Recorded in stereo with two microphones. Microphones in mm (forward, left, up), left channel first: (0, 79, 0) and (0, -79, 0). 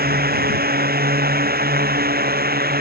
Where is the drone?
80° right.